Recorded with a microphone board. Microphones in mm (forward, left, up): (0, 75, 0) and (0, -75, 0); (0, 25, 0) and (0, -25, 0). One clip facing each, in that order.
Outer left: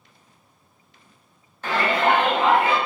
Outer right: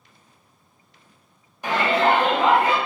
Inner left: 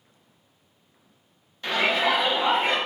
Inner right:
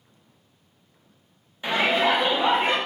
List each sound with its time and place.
1.6 s a shout: 15° right (ahead or behind), 0.6 m; by 2.8 s 40° right (ahead or behind), 1.0 m